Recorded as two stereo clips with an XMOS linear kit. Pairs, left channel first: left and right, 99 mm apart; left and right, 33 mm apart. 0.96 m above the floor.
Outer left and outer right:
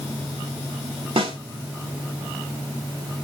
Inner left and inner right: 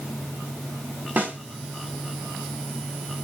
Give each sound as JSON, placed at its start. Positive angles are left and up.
{"t": 1.2, "sound": "a snare drum", "side_deg": -70, "distance_m": 3.0}